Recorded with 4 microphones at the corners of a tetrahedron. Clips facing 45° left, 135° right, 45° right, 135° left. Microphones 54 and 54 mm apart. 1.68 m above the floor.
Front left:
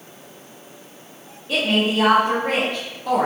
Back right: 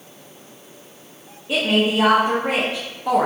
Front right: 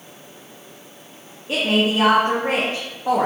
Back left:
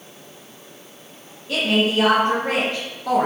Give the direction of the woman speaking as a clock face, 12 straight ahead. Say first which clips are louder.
Back right 1 dB, even; 2 o'clock.